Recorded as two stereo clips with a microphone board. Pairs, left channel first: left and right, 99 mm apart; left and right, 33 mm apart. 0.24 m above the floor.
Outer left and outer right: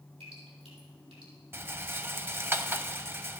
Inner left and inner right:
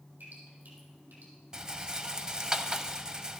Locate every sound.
0.2 s dripping: 80° right, 4.5 m
1.5 s a rattle: 25° right (ahead or behind), 0.5 m